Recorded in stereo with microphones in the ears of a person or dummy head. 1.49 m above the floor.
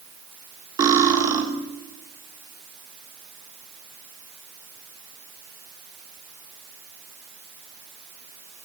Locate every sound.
0.8 s cutlery clinking: 20° right (ahead or behind), 2.0 m